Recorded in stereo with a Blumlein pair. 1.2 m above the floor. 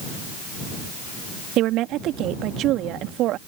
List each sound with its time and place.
1.6 s a woman speaking: 35° right